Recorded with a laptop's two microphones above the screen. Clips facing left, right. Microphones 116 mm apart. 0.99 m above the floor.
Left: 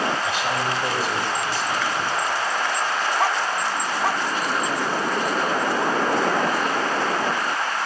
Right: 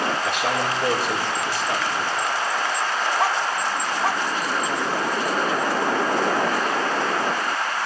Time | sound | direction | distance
0.2 | a man speaking | 70° right (ahead or behind) | 3.5 m